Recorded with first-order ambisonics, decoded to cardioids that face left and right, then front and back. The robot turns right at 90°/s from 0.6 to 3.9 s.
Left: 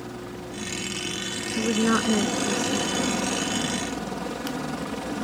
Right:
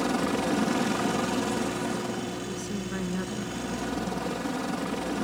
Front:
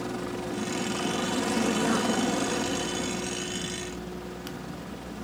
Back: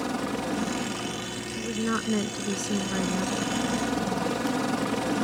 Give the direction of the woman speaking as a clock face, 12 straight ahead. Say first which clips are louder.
Left 7 dB, front 1 dB; 10 o'clock.